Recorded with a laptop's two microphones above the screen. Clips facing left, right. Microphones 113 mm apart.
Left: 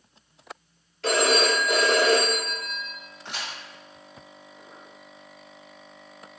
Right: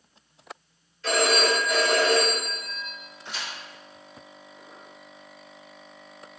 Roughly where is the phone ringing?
Left.